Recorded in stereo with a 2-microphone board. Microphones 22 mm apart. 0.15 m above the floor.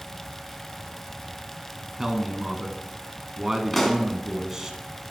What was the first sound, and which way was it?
A man speaking, 15° right (ahead or behind).